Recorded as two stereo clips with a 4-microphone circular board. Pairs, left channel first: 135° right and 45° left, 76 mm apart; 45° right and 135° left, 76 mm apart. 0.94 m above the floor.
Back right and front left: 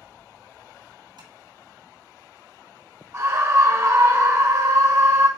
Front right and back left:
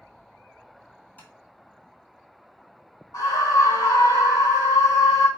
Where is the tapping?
20° left, 1.5 m.